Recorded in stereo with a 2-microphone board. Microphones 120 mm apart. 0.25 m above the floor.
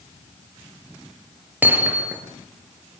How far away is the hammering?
About 4.5 m.